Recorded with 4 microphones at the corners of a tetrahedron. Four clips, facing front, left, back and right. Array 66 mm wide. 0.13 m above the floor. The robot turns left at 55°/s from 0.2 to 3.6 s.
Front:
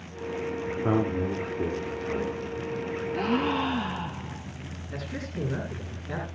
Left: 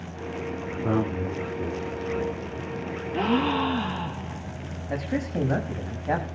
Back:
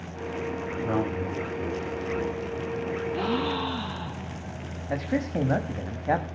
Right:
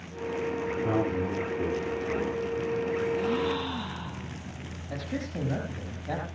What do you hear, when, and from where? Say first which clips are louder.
0.7 s a man speaking: left 3 dB, front 2 dB; 40° left, 6.5 m; by 3.0 s 90° right, 6.5 m
3.1 s a gasp: left 4 dB, front 3 dB; 80° left, 2 m; by 4.5 s 55° left, 2 m
4.9 s a man speaking: left 6 dB, back 9 dB; 155° left, 6.5 m